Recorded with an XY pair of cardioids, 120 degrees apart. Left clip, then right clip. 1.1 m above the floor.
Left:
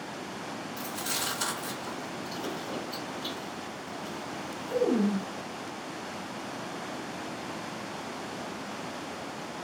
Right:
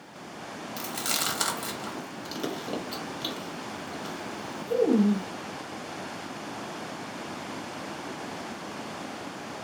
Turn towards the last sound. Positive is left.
turn(degrees=-55)